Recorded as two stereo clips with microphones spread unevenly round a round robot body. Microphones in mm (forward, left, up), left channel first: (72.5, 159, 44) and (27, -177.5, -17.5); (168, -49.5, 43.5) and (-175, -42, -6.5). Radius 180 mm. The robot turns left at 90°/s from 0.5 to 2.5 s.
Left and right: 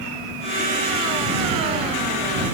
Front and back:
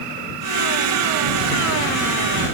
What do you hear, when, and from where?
Only background noise.